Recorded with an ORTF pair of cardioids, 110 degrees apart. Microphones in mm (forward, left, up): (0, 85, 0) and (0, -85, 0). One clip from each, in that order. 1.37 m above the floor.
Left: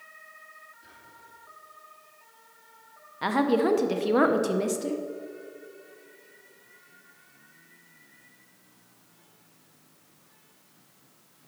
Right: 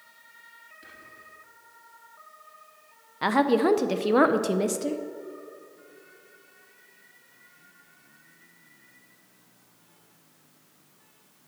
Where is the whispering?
60° right, 3 m.